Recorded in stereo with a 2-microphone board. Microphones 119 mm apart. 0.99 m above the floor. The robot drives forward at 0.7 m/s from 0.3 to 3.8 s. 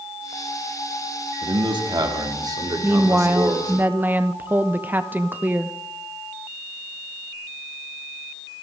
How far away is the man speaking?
About 1.8 m.